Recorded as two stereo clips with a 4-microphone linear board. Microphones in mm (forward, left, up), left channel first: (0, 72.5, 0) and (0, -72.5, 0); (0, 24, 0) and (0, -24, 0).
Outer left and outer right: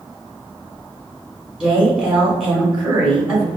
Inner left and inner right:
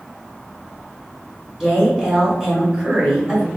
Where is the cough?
No cough in this recording.